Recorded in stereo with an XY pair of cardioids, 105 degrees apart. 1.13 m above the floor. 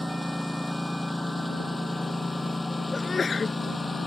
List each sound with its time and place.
0.0 s a lawn mower: 5° left; by 4.1 s 20° left
2.9 s a sneeze: 35° left